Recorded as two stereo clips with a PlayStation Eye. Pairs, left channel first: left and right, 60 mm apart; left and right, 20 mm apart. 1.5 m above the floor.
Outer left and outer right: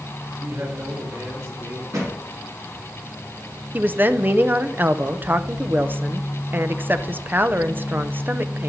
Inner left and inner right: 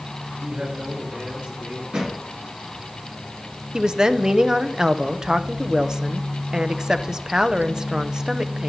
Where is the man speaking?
85° right, 6 m.